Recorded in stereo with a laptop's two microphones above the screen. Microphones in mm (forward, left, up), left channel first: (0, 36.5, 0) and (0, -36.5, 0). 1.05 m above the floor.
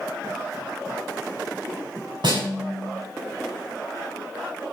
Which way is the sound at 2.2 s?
75° right (ahead or behind).